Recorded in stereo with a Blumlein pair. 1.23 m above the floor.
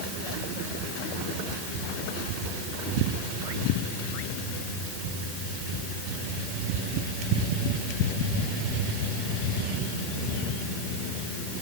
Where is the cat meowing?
No cat meowing in this recording.